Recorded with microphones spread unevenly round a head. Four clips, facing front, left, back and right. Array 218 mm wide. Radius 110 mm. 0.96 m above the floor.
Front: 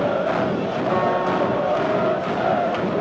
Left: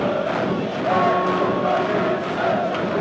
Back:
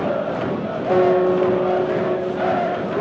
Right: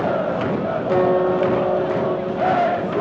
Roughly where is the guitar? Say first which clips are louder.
Right 2 dB, back 7 dB; behind.